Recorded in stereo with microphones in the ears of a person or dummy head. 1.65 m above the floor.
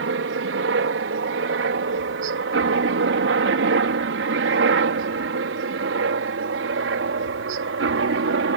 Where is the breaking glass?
No breaking glass in this recording.